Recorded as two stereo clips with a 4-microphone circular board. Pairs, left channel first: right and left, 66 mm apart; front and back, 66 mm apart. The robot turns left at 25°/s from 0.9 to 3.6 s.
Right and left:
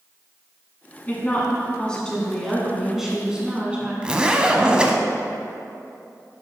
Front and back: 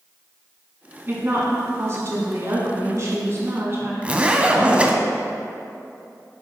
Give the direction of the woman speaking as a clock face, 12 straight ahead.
5 o'clock.